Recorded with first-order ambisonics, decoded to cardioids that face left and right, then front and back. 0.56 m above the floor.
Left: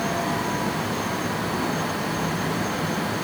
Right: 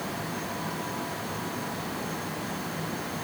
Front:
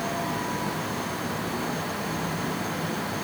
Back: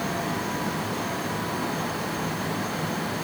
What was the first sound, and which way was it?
Only background noise.